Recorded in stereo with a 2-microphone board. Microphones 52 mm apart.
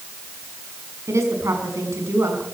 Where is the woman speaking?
75° right (ahead or behind), 5.5 m.